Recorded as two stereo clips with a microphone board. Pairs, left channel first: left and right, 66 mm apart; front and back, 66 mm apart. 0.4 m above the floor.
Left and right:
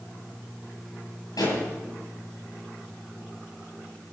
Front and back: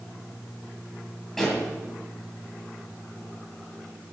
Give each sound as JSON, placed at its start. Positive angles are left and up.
{"t": 1.4, "sound": "a pop", "azimuth_deg": 85, "distance_m": 9.0}